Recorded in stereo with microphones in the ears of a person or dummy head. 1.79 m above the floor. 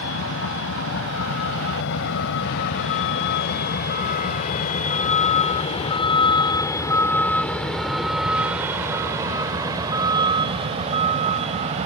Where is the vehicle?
80° left; by 11.8 s 35° right (ahead or behind).